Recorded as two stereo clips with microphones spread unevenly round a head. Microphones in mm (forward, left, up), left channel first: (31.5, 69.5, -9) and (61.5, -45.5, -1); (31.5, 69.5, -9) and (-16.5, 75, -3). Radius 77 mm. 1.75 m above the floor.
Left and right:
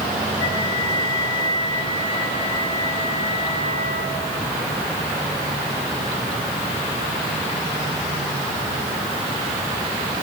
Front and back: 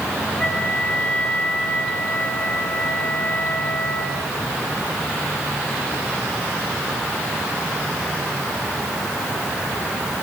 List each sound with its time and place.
0.4 s a flute: 60° left, 7 m